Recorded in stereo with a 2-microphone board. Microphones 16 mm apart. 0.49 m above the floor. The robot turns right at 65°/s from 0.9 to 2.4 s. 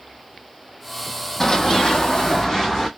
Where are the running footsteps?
30° left (ahead or behind), 0.8 m.